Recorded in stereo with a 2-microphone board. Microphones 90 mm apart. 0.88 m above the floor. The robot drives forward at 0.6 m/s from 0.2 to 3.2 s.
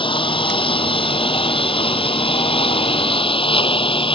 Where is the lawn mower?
70° left (ahead or behind); by 4.1 s 80° left.